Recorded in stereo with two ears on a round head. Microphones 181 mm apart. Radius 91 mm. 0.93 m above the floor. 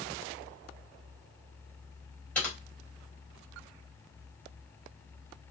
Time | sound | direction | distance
2.4 | typing on a keyboard | 5° left (ahead or behind) | 3.5 m